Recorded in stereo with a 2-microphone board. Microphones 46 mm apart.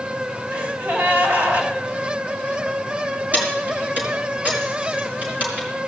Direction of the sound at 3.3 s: 40° right (ahead or behind).